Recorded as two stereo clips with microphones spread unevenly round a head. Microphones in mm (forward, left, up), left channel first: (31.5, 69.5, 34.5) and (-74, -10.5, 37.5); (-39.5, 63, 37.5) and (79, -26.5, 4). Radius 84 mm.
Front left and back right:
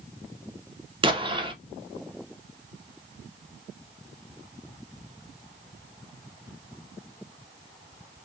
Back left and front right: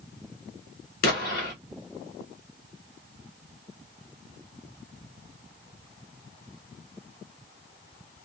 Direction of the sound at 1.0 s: 170° left.